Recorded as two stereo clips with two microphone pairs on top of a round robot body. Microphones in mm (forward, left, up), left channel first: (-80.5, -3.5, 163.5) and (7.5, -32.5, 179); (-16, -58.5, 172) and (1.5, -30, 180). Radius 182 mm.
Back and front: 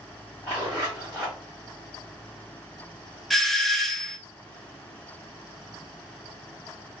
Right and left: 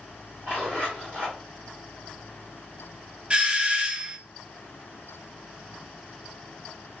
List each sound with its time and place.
0.4 s a zipper: 75° left, 0.6 m
3.3 s a doorbell: 110° left, 0.7 m